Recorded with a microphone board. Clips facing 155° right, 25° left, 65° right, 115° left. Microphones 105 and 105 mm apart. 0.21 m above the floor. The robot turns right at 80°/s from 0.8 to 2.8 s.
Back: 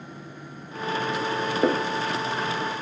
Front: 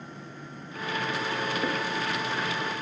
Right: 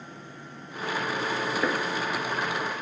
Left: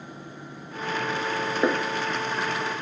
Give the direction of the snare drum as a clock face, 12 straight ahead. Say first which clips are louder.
Back 6 dB, left 3 dB; 6 o'clock.